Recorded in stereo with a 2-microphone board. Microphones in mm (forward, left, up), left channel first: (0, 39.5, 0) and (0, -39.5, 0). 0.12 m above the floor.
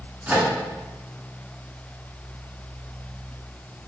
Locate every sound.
0.3 s a microwave: 15° right (ahead or behind), 1.1 m